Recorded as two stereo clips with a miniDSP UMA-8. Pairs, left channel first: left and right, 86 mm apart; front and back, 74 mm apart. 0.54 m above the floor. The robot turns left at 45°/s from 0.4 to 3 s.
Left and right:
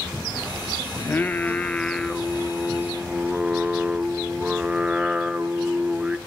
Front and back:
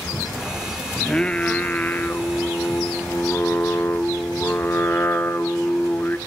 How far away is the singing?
About 0.5 m.